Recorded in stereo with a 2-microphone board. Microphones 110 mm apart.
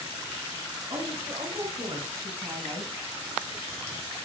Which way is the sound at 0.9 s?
45° right (ahead or behind).